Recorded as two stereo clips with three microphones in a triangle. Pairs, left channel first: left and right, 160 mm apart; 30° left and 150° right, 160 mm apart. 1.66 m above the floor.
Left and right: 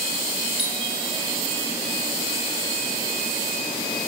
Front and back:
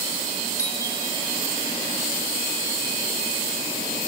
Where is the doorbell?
40° right, 3.5 m.